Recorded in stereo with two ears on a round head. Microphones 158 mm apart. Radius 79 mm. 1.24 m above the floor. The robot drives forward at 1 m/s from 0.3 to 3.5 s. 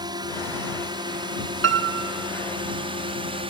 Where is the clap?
No clap in this recording.